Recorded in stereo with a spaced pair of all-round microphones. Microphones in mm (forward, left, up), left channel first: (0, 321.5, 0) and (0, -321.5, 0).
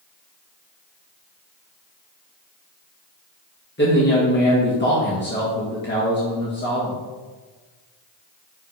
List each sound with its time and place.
3.8 s a man speaking: 15° left (ahead or behind), 1.4 m